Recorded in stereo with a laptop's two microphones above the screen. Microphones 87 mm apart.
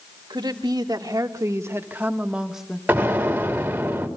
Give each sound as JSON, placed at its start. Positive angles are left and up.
{"t": 0.3, "sound": "a woman speaking", "side_deg": -55, "distance_m": 1.8}
{"t": 2.9, "sound": "an explosion", "side_deg": -20, "distance_m": 3.0}